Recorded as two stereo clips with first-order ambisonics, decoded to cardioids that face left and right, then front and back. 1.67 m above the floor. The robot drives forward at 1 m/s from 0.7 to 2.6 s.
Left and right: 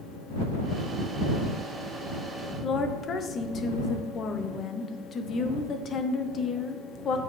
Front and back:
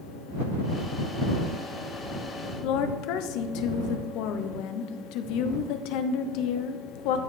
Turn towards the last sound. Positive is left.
turn(degrees=25)